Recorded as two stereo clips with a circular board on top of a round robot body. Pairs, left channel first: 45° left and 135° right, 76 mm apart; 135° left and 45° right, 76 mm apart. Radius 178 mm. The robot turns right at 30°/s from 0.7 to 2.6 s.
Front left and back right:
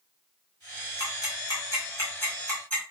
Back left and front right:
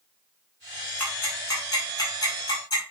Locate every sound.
1.0 s ticking: 70° left, 5 m; by 2.8 s 120° left, 5 m